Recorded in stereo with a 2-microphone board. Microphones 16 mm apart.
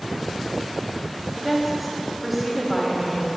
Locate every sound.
1.4 s a woman speaking: 5° right (ahead or behind), 6 m; by 3.3 s centre (ahead or behind), 5 m